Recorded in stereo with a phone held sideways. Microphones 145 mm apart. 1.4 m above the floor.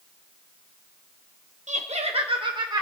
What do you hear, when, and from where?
1.7 s laughter: 60° right (ahead or behind), 1.4 m; by 2.8 s 25° right (ahead or behind), 1.6 m